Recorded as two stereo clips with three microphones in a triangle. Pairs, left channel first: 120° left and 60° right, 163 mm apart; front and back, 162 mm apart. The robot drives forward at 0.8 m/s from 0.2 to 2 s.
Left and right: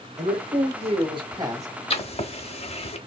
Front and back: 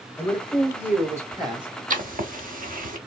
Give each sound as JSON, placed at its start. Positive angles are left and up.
{"t": 0.2, "sound": "a man speaking", "azimuth_deg": -75, "distance_m": 1.5}
{"t": 1.9, "sound": "writing", "azimuth_deg": 160, "distance_m": 0.9}